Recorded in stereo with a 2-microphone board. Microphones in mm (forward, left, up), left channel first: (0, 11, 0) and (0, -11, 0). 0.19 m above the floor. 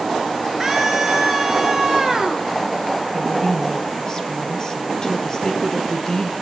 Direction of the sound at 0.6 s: 5° right (ahead or behind).